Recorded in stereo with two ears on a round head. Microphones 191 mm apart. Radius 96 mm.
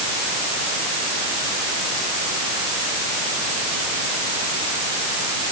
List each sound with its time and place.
Only background noise.